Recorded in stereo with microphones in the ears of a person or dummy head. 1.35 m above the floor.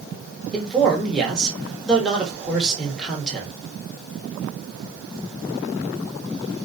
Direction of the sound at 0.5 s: 5° left (ahead or behind).